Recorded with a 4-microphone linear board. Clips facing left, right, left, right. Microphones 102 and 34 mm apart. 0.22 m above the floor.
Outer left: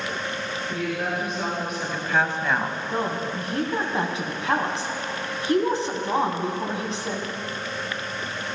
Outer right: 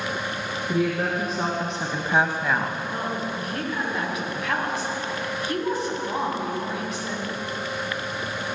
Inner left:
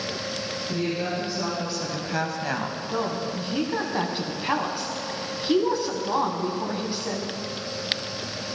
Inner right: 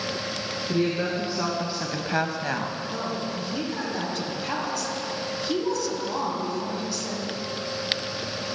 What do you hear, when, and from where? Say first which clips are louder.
0.7 s a woman speaking: outer right 5 dB, inner right 3 dB; 35° right (ahead or behind), 2.5 m; by 2.8 s 10° left (ahead or behind), 1.3 m
2.9 s a woman speaking: outer left 2 dB, inner left 2 dB; 30° left (ahead or behind), 2 m